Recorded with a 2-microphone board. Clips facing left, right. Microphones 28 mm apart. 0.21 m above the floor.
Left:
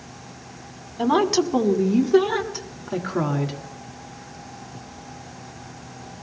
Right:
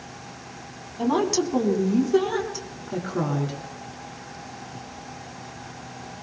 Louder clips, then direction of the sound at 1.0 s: Left 3 dB; 30° left (ahead or behind).